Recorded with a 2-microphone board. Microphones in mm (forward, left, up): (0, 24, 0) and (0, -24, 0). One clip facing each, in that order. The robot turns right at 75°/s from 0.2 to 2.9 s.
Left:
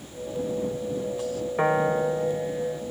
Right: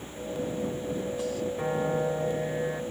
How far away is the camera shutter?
No camera shutter in this recording.